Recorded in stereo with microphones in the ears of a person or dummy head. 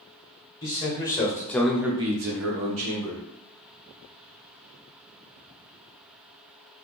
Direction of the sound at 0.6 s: 25° left (ahead or behind).